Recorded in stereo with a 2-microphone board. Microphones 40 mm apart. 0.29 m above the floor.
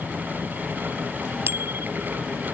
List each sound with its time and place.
1.5 s a bicycle bell: 80° right